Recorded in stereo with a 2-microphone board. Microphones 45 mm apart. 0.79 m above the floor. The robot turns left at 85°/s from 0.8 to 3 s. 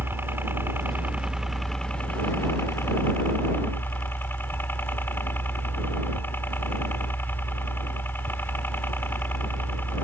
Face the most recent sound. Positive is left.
turn(degrees=60)